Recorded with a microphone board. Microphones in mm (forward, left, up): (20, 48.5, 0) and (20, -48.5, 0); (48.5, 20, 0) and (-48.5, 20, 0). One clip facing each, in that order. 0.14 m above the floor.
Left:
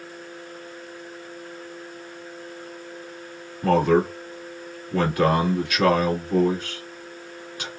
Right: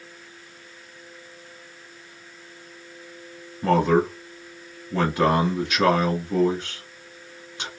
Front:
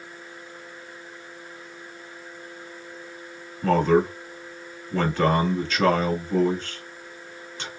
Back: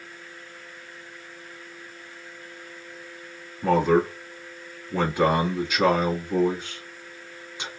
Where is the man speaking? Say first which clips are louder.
Left 1 dB, front 1 dB; 120° right, 1.2 m.